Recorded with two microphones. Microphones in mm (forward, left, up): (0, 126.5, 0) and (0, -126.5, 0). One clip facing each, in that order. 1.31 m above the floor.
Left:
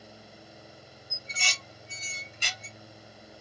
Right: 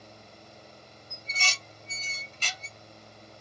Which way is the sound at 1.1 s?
10° left (ahead or behind).